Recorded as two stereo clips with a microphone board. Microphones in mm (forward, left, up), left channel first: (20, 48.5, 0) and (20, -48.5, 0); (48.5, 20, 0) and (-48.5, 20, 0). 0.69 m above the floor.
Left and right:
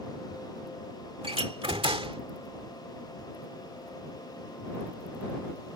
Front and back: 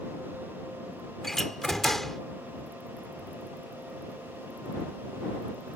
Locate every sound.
1.2 s a door slam: 85° right